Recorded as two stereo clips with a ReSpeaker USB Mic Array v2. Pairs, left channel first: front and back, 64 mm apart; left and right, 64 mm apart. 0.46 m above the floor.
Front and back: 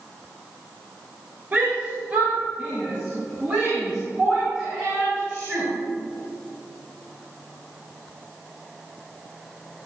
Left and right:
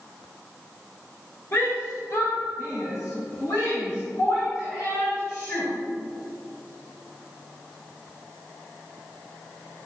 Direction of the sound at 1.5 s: 125° left.